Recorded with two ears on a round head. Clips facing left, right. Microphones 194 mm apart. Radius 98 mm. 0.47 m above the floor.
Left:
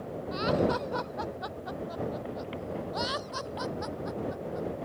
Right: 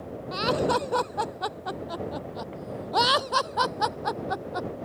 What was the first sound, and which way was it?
Laughter, 60° right (ahead or behind).